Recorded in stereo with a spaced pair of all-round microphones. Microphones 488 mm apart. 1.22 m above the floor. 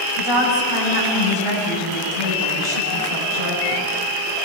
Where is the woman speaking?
85° right, 9.5 m.